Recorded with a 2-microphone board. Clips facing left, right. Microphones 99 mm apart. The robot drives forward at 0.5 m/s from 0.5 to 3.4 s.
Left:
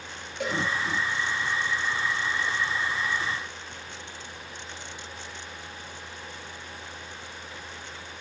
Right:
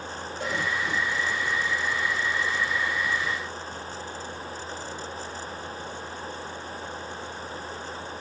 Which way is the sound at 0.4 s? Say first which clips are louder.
Left 2 dB; 80° left.